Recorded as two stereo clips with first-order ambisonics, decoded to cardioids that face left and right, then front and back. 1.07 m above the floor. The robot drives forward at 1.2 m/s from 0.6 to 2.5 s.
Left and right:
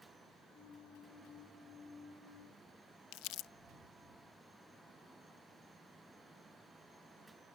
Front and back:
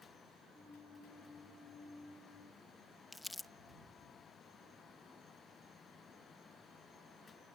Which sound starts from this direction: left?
Crumpling, at 3.1 s.